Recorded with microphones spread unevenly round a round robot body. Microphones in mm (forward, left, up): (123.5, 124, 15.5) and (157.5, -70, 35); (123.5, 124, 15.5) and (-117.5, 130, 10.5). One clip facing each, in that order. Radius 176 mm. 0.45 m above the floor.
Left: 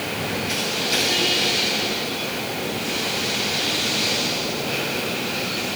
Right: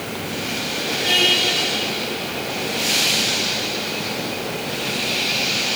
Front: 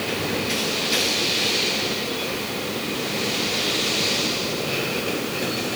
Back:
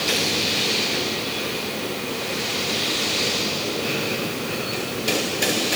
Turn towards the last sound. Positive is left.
No sound to turn to.